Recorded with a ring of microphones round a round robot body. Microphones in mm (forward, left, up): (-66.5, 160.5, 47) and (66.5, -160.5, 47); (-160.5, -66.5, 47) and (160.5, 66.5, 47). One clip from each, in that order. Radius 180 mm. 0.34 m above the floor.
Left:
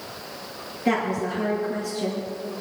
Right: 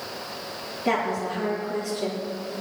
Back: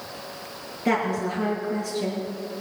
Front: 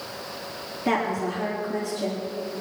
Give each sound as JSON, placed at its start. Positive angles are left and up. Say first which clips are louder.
{"t": 0.8, "sound": "a woman speaking", "louder": "left 1 dB, back 1 dB", "azimuth_deg": -170, "distance_m": 6.0}